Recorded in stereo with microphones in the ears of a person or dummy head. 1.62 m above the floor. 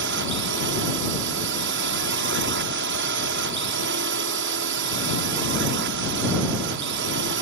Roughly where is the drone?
Right.